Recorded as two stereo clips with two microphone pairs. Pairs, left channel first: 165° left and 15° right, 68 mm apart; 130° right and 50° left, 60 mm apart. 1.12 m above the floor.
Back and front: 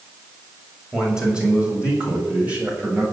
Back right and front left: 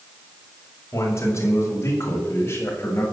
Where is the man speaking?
95° right, 6.5 m; by 3.0 s 80° right, 7.5 m.